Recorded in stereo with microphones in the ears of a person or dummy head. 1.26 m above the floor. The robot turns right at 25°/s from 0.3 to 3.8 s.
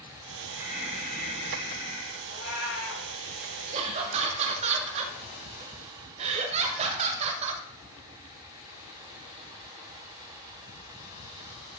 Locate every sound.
0.5 s breathing: 15° right, 5 m; by 2.1 s 30° left, 5 m
2.2 s a cat meowing: 45° left (ahead or behind), 5.5 m; by 3.1 s 65° left (ahead or behind), 5.5 m
3.7 s laughter: 35° right (ahead or behind), 0.6 m